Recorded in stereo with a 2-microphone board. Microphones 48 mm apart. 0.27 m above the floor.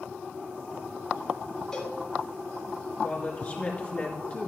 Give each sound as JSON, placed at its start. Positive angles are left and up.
{"t": 1.7, "sound": "a cowbell", "side_deg": 15, "distance_m": 2.5}
{"t": 3.0, "sound": "a woman speaking", "side_deg": 35, "distance_m": 3.0}